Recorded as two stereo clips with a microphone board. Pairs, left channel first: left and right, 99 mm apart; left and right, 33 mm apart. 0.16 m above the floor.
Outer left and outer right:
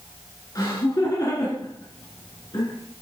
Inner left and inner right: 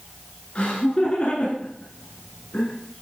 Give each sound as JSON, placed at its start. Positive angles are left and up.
{"t": 0.6, "sound": "laughter", "side_deg": 40, "distance_m": 2.0}